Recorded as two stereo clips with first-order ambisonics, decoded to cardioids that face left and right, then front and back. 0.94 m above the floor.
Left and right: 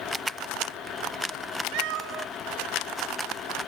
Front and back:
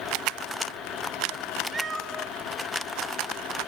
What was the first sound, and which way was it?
A cat meowing, 105° right.